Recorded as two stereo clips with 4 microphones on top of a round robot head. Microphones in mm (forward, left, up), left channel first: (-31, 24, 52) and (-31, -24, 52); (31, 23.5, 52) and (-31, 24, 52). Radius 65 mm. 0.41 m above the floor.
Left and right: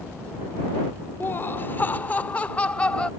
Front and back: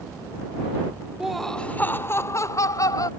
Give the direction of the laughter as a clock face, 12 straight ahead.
9 o'clock.